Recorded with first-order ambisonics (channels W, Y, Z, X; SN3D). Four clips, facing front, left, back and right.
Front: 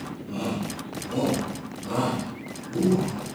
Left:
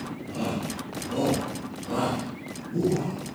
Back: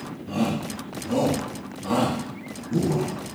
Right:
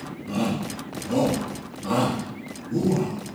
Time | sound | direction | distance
0.3 | a shout | 150° right | 4.5 m